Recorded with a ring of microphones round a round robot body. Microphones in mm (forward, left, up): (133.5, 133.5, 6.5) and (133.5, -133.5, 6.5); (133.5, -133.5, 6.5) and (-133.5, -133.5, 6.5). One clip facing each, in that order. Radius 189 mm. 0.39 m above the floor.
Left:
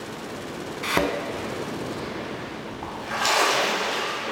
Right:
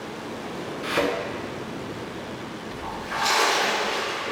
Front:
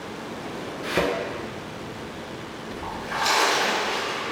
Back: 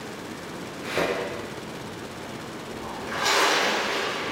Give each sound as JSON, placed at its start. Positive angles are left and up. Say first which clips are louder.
{"t": 0.8, "sound": "a thud", "louder": "even, front 2 dB", "azimuth_deg": 55, "distance_m": 0.6}
{"t": 2.8, "sound": "a splash", "louder": "left 1 dB, back 1 dB", "azimuth_deg": 100, "distance_m": 1.9}